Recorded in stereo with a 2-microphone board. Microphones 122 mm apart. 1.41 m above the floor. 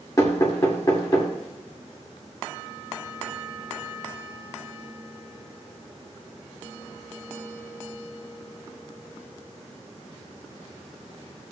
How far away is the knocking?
About 2.5 m.